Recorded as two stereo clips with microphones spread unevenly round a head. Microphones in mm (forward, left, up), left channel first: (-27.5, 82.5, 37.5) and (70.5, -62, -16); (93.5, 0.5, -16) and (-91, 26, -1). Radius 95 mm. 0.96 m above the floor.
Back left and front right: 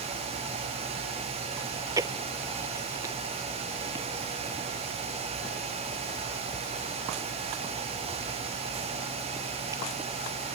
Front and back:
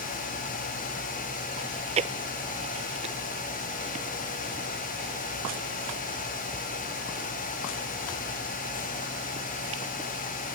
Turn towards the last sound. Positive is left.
turn(degrees=-130)